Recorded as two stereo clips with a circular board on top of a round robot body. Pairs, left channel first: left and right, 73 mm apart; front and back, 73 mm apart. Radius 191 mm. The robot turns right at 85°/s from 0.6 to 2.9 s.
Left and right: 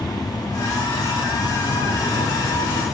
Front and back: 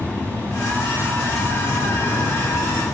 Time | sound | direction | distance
0.0 | an insect | 65° left | 2 m